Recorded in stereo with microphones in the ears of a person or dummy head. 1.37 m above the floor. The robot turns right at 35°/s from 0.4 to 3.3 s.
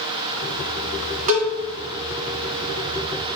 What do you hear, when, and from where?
1.3 s a cowbell: 45° right (ahead or behind), 0.7 m; by 1.5 s 55° right (ahead or behind), 0.7 m